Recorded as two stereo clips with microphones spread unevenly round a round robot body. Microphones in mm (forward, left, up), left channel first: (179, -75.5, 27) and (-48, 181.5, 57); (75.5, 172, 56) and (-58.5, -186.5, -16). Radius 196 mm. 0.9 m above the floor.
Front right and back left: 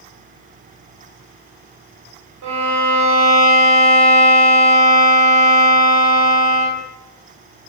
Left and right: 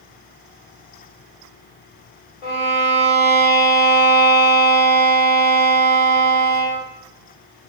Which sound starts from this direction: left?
A violin, at 2.4 s.